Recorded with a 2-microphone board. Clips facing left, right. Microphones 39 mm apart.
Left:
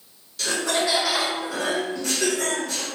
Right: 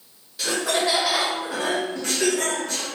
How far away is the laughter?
About 1.2 m.